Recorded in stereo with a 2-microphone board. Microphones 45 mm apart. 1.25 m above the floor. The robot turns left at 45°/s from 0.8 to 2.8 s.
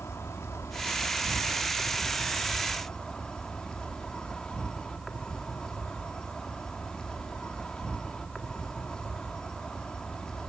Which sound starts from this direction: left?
An insect, at 0.0 s.